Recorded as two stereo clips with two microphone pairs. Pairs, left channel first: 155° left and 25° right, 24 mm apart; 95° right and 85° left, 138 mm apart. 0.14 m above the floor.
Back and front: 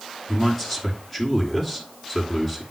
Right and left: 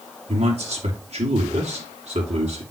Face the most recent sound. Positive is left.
turn(degrees=80)